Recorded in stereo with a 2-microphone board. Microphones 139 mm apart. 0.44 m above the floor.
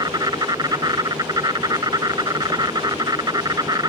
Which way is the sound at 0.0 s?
30° right (ahead or behind).